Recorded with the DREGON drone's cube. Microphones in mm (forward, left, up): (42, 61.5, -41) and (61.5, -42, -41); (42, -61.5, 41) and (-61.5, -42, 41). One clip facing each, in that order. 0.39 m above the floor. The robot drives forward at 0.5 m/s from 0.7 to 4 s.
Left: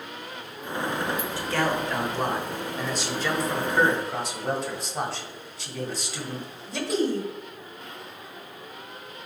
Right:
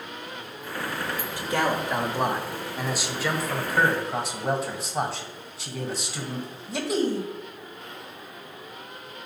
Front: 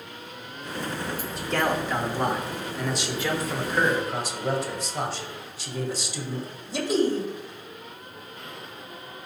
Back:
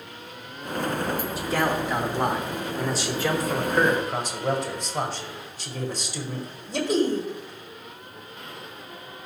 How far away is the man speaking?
About 1.1 m.